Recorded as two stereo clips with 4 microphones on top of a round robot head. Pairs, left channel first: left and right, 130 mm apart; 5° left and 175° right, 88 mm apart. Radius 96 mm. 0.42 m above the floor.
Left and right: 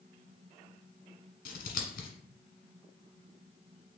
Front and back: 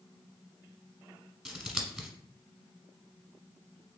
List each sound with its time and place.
1.4 s scissors: 95° left, 1.1 m